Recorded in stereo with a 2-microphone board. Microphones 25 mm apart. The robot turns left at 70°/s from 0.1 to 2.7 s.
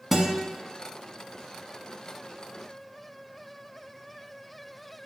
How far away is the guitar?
About 0.7 m.